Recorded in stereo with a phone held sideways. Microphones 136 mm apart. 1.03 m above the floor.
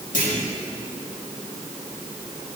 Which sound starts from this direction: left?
A clunk, at 0.1 s.